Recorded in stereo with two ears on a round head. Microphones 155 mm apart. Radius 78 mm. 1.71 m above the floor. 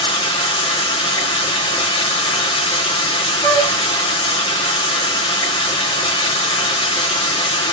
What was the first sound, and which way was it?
Running water, 30° left (ahead or behind).